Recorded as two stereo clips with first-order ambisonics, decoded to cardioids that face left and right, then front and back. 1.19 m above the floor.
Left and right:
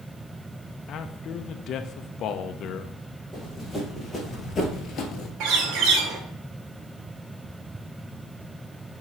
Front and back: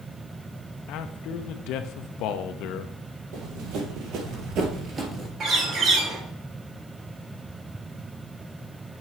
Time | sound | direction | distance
0.9 | a man speaking | 35° left | 0.6 m
3.3 | running footsteps | straight behind | 2.5 m
5.4 | a bird | 120° right | 1.8 m